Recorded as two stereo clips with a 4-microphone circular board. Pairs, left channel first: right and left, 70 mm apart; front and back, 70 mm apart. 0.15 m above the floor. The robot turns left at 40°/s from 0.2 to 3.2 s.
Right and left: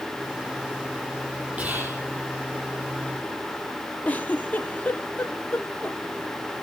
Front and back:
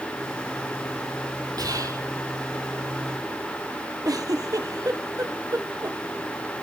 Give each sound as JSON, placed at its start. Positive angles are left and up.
{"t": 1.6, "sound": "whispering", "azimuth_deg": 160, "distance_m": 6.0}
{"t": 4.0, "sound": "a giggle", "azimuth_deg": -155, "distance_m": 2.0}